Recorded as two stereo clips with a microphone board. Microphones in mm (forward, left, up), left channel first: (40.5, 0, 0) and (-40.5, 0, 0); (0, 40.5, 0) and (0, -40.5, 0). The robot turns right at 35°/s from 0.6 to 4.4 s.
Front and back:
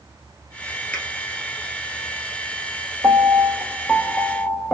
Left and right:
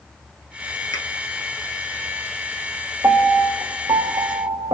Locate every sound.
0.9 s a finger snap: 65° left, 1.6 m; by 1.1 s 70° left, 1.6 m
3.0 s a piano: 135° right, 0.5 m; by 4.7 s 90° right, 0.5 m